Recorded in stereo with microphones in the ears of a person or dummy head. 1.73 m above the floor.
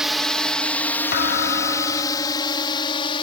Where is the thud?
55° left (ahead or behind).